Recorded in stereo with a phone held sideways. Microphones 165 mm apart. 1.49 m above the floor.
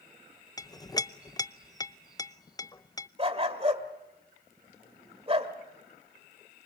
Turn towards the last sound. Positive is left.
turn(degrees=-35)  # may be behind; listen again after turning